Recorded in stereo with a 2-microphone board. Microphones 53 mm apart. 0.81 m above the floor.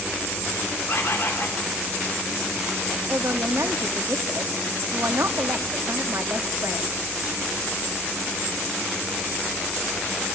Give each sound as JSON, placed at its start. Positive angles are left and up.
{"t": 0.9, "sound": "a bird", "side_deg": 55, "distance_m": 2.5}
{"t": 3.1, "sound": "a man speaking", "side_deg": -60, "distance_m": 1.4}